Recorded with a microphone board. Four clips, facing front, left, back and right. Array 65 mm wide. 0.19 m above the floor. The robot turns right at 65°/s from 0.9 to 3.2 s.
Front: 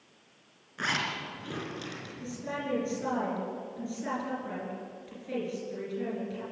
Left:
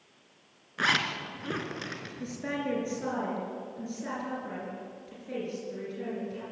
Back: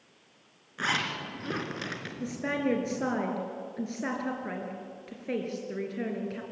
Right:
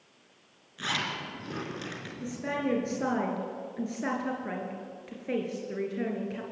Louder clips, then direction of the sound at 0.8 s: Left 5 dB, back 1 dB; 95° left.